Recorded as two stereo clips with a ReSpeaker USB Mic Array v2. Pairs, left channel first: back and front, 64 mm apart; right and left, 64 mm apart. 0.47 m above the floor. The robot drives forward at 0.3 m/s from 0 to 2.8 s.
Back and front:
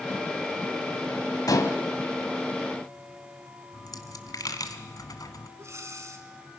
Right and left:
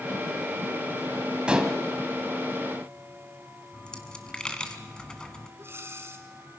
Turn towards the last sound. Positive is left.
turn(degrees=40)